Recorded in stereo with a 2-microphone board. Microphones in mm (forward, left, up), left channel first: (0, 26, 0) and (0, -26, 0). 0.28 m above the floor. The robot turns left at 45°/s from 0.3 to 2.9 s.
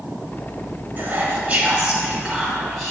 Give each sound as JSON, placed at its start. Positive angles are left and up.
{"t": 1.0, "sound": "whispering", "azimuth_deg": -90, "distance_m": 1.2}